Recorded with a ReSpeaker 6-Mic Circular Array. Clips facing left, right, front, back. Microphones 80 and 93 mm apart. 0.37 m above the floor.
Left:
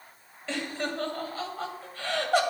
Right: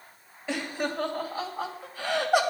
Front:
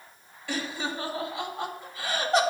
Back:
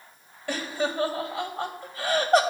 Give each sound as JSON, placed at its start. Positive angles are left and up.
{"t": 0.5, "sound": "laughter", "azimuth_deg": -165, "distance_m": 2.0}